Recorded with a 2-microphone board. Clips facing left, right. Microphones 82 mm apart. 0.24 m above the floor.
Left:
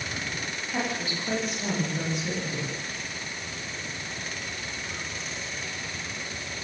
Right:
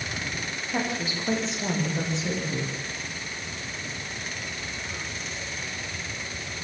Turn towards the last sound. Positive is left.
turn(degrees=-25)  # may be behind; listen again after turning